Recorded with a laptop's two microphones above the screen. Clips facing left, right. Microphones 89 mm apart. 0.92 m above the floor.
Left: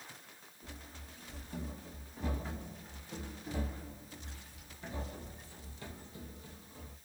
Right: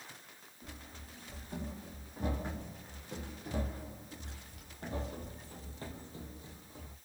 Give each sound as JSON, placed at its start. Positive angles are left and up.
{"t": 0.6, "sound": "running footsteps", "side_deg": -55, "distance_m": 3.0}